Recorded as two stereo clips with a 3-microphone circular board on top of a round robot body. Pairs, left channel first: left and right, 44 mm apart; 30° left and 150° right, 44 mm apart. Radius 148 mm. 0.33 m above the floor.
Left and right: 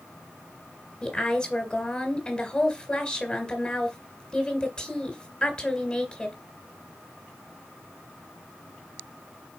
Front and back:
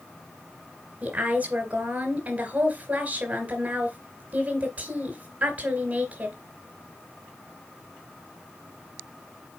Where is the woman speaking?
165° left, 3 m.